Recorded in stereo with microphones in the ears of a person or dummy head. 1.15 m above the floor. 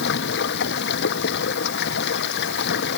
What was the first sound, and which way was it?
Running water, 70° left (ahead or behind).